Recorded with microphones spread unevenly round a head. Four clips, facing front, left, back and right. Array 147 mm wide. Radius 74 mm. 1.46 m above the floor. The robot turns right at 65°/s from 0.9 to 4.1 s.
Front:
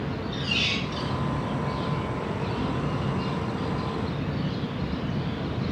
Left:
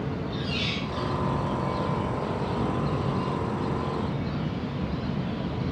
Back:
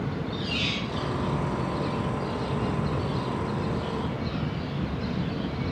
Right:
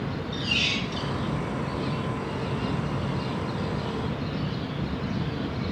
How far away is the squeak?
About 9 m.